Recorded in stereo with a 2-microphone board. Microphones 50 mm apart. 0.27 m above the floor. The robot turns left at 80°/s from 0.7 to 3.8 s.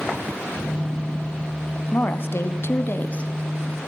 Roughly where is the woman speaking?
Behind left.